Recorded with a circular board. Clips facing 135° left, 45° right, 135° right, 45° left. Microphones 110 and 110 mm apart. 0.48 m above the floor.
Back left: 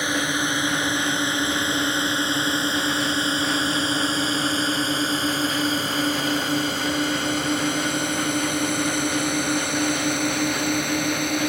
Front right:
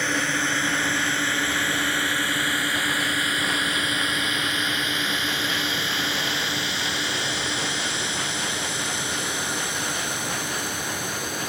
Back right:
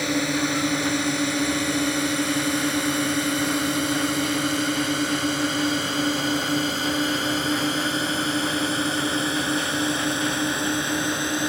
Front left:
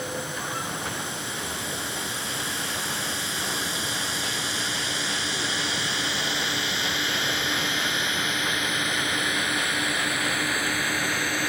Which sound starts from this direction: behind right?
A drone, at 0.0 s.